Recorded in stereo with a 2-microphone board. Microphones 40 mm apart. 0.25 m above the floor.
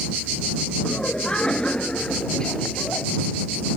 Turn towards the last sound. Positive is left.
turn(degrees=20)  # may be behind; listen again after turning